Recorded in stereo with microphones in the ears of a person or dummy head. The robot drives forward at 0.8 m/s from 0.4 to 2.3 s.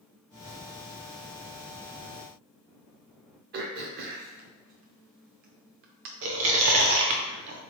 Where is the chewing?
65° right (ahead or behind), 0.7 m.